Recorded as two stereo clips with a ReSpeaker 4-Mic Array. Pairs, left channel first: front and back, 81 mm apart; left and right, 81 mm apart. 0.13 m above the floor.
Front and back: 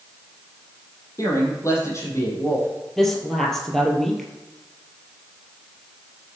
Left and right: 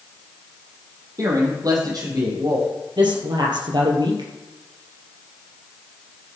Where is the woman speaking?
85° right, 3 m.